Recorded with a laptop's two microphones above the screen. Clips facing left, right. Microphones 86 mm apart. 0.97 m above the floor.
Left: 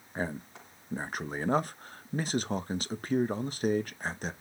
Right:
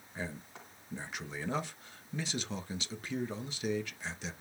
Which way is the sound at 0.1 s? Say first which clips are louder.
Left 7 dB; 45° left (ahead or behind).